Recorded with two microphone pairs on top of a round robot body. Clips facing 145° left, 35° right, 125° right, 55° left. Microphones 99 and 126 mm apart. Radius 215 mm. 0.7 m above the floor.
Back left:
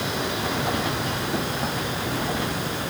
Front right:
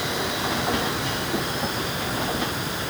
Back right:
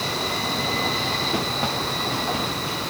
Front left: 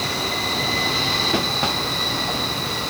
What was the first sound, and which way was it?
Only background noise.